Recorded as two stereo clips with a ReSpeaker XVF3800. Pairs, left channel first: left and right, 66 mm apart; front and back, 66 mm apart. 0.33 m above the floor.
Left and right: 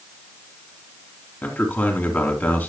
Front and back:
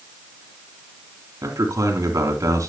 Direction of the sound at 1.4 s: 150° left.